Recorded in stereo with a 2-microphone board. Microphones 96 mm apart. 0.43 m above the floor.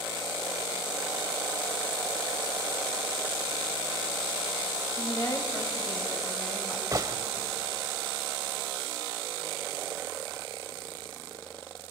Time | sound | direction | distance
5.0 | a woman speaking | 40° left (ahead or behind) | 3 m
6.9 | a gunshot | 35° right (ahead or behind) | 1.1 m